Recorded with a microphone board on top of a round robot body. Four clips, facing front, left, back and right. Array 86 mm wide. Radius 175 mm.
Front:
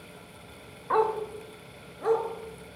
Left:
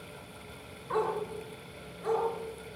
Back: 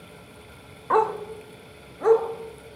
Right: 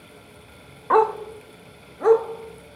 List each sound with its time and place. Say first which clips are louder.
0.9 s a dog barking: right 12 dB, back 3 dB; 110° right, 1.9 m; by 2.2 s 115° right, 3.5 m